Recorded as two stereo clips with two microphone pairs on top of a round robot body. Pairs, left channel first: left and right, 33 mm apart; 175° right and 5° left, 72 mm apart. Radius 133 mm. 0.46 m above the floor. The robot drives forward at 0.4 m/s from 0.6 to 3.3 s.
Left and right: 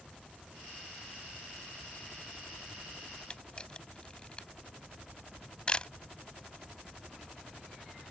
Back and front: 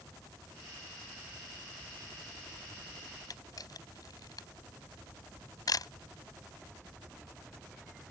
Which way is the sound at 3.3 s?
155° left.